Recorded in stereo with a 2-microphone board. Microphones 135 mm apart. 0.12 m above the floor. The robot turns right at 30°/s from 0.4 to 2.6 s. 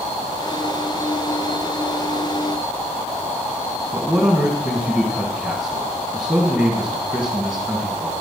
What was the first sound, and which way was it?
A man speaking, 5° right (ahead or behind).